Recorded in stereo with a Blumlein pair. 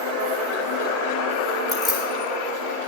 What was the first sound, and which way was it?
Keys jangling, 35° left.